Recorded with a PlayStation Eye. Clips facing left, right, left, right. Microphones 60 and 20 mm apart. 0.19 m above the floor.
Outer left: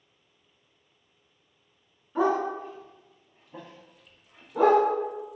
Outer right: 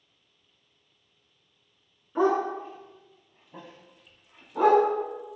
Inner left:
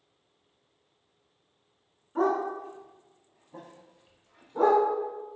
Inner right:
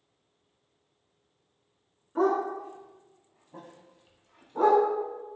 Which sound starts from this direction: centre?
A dog barking, at 2.1 s.